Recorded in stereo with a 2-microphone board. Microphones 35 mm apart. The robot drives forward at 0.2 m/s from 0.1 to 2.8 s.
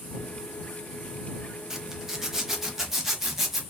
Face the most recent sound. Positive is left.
turn(degrees=-10)  # may be behind; listen again after turning